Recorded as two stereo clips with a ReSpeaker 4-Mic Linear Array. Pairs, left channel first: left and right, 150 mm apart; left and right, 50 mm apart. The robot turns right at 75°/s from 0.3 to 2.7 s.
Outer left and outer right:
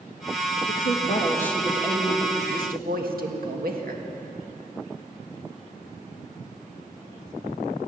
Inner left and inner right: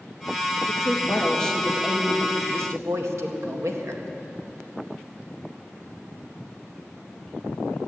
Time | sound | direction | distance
0.7 | a woman speaking | 110° left | 1.8 m